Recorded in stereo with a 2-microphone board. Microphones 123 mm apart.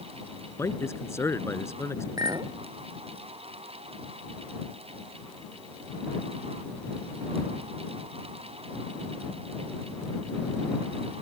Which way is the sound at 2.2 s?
30° right (ahead or behind).